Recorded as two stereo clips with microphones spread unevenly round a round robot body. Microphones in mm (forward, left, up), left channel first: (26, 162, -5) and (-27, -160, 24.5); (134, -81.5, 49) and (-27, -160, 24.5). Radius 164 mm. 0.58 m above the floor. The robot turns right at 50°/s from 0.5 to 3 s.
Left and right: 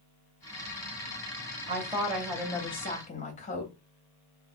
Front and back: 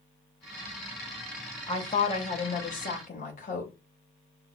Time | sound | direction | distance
1.7 | a woman speaking | 30° right | 1.0 m